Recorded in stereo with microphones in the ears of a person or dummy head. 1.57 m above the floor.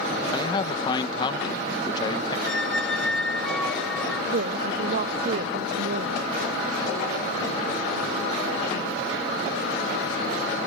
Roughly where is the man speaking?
Left.